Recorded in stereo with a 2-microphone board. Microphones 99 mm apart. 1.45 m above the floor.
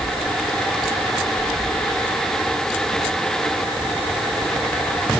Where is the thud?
I don't hear a thud.